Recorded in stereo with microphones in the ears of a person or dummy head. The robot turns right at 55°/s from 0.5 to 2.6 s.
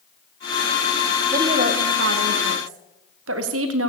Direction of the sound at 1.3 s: 160° right.